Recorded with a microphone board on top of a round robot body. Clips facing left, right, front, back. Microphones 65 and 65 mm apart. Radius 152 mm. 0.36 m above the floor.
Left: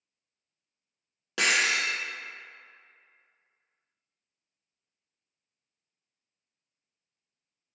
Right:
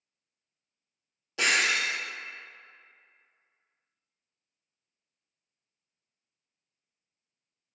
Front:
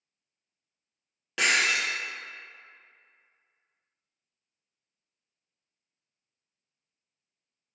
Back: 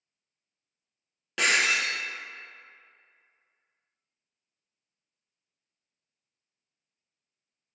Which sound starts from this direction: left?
Breaking glass, at 1.4 s.